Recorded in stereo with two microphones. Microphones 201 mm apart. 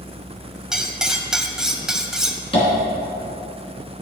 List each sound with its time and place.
0.7 s cutlery clinking: 5° right (ahead or behind), 0.6 m
2.5 s tapping: 25° left (ahead or behind), 2.5 m